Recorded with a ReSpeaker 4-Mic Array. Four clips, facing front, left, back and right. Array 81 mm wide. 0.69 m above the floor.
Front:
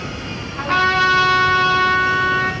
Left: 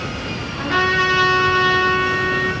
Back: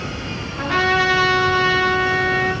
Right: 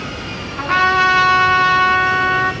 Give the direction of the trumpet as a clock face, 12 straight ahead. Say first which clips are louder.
Right 4 dB, front 2 dB; 2 o'clock.